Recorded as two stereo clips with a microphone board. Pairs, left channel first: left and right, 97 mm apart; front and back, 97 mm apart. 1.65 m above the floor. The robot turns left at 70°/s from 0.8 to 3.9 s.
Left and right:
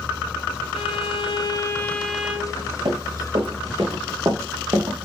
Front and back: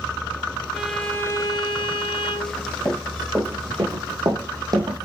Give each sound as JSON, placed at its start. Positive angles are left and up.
{"t": 0.7, "sound": "a violin", "azimuth_deg": 95, "distance_m": 1.1}
{"t": 2.9, "sound": "running footsteps", "azimuth_deg": -60, "distance_m": 5.5}